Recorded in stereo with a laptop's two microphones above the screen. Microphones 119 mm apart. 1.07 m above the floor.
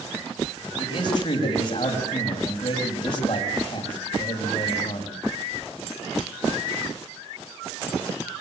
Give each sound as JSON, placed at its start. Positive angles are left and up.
{"t": 0.8, "sound": "a man speaking", "side_deg": 45, "distance_m": 6.0}